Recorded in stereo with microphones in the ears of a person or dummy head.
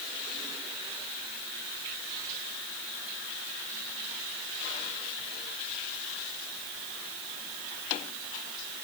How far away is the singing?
I don't hear singing.